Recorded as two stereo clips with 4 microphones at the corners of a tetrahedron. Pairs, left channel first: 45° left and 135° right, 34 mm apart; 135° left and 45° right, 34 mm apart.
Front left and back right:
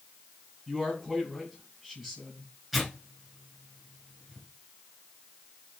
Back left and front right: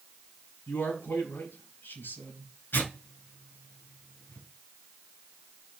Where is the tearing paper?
135° left, 5.5 m.